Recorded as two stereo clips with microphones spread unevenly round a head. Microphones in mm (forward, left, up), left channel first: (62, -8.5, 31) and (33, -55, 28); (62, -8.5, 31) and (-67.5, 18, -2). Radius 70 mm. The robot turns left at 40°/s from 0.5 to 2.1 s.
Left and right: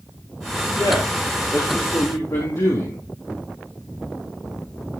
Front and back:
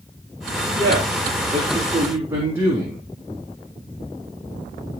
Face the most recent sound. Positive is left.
turn(degrees=95)